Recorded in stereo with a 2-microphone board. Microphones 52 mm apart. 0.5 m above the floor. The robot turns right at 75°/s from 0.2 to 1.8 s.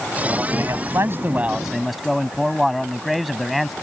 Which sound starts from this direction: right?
A man speaking, at 0.5 s.